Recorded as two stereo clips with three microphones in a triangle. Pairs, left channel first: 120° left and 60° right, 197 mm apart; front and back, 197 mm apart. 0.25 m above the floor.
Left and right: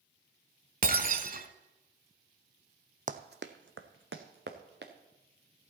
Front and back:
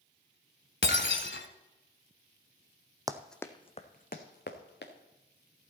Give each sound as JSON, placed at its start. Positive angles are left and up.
{"t": 0.8, "sound": "breaking glass", "azimuth_deg": -15, "distance_m": 1.0}
{"t": 3.1, "sound": "running footsteps", "azimuth_deg": -105, "distance_m": 0.8}